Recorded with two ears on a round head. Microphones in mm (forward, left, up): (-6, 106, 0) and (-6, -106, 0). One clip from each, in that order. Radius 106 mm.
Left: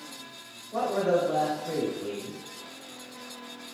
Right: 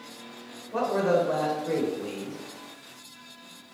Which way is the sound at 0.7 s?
15° right (ahead or behind).